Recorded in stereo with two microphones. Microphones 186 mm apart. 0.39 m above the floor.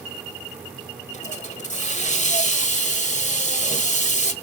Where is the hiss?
40° left (ahead or behind), 1.3 m.